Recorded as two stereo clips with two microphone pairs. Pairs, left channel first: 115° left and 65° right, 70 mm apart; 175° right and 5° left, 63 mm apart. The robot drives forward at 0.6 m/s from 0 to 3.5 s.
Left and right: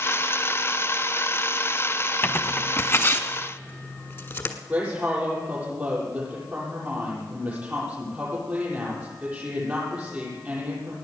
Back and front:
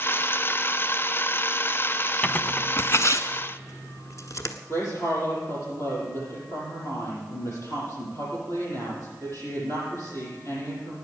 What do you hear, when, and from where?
2.2 s tearing paper: 140° left, 0.7 m; by 4.5 s 165° left, 1.3 m
4.7 s a woman speaking: 135° right, 7.5 m